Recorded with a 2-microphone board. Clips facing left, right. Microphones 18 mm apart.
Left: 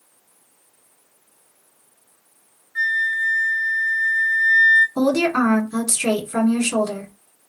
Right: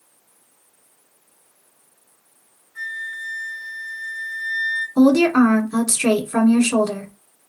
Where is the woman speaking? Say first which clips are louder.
Right 4 dB; 15° right (ahead or behind), 1.2 m.